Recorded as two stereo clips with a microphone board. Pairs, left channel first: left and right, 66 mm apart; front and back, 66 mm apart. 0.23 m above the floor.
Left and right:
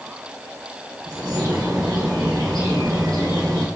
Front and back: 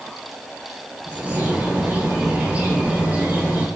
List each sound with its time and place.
1.1 s a bird: 105° right, 1.6 m